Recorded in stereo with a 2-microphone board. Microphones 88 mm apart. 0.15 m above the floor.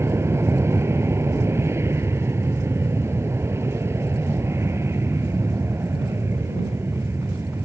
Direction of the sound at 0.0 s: 30° right (ahead or behind).